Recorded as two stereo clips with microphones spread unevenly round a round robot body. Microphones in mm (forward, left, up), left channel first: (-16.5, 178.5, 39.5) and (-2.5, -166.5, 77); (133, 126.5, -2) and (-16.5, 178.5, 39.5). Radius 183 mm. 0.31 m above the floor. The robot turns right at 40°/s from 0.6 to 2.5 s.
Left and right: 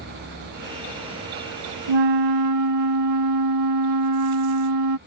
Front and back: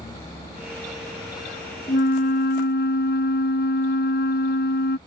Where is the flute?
70° right; by 5.0 s 45° right.